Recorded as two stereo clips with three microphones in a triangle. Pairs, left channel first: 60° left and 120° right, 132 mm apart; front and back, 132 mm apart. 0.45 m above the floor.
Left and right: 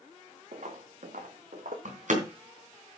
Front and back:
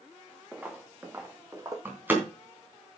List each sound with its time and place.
0.5 s footsteps: 100° right, 1.8 m; by 1.8 s 115° right, 2 m
1.9 s a door slam: 105° right, 3 m